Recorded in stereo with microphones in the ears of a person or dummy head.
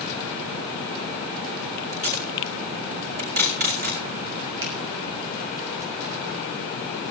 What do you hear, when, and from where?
1.9 s tape being pulled: 45° right (ahead or behind), 4.5 m
4.6 s a finger snap: 65° right (ahead or behind), 8 m